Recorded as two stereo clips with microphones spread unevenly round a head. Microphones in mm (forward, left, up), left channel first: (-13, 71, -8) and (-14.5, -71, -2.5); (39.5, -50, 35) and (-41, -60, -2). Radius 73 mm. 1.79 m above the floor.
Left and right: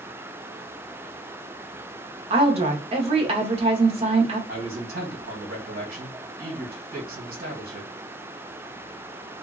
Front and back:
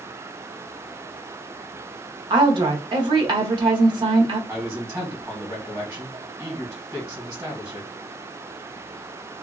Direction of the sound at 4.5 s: 115° right.